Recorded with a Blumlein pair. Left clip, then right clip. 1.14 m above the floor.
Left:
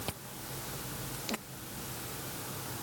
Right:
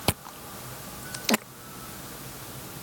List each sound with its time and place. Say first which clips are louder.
0.1 s chewing: right 10 dB; 35° right